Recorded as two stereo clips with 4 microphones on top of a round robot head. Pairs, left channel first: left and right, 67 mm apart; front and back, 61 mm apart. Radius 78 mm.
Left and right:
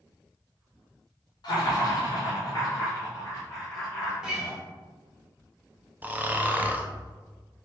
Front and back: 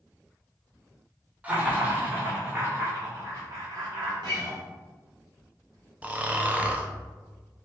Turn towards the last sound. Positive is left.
turn(degrees=-135)